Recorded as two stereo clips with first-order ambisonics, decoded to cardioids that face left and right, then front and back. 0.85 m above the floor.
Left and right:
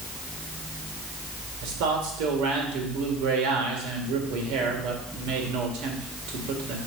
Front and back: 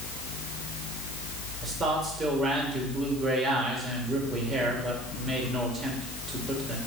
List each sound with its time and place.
1.6 s a man speaking: 110° right, 2.5 m